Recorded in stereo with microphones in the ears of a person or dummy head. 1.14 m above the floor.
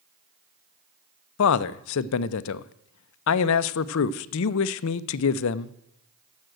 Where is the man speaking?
70° left (ahead or behind), 0.5 m.